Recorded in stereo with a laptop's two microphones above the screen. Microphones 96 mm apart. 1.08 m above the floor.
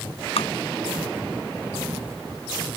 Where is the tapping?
85° left.